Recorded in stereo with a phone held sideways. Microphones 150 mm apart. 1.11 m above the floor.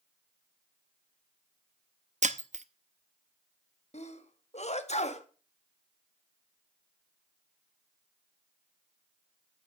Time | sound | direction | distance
2.2 | breaking glass | 50° right (ahead or behind) | 0.7 m
3.9 | a sneeze | 50° left (ahead or behind) | 1.6 m